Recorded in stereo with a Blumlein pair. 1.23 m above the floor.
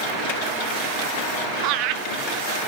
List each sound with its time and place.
1.6 s laughter: 40° right, 1.2 m